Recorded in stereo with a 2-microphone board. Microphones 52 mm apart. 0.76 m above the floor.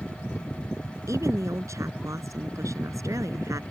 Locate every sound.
1.1 s a woman speaking: 75° right (ahead or behind); by 3.6 s 85° right